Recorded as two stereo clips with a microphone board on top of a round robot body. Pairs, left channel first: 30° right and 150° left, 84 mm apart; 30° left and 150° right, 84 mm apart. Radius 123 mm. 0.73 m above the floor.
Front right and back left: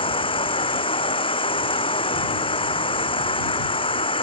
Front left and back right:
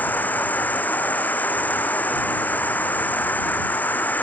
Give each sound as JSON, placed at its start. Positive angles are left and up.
{"t": 0.0, "sound": "an insect", "azimuth_deg": -40}